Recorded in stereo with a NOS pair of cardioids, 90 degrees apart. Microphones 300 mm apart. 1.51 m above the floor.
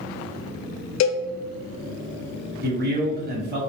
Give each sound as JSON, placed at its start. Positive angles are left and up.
{"t": 1.0, "sound": "a cowbell", "azimuth_deg": 60, "distance_m": 0.6}
{"t": 2.6, "sound": "a man speaking", "azimuth_deg": -35, "distance_m": 1.2}